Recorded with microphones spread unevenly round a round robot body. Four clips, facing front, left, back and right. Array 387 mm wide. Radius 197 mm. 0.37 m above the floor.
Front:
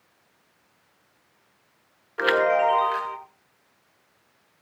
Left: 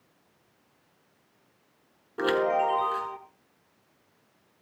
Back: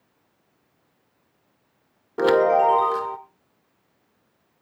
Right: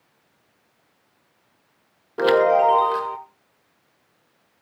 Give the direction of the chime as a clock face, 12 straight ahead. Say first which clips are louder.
Right 9 dB, back 4 dB; 5 o'clock.